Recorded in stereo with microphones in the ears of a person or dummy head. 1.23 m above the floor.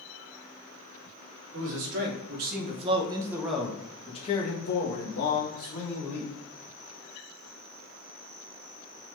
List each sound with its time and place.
1.5 s a man speaking: 65° right (ahead or behind), 1.1 m; by 6.3 s 65° left (ahead or behind), 1.6 m